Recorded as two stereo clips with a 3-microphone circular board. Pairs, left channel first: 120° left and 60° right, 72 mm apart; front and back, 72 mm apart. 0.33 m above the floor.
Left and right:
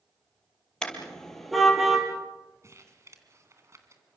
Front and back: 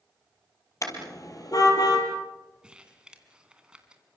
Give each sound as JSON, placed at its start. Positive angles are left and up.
{"t": 0.8, "sound": "a car horn", "azimuth_deg": 40, "distance_m": 4.0}
{"t": 2.6, "sound": "crumpling", "azimuth_deg": -105, "distance_m": 2.5}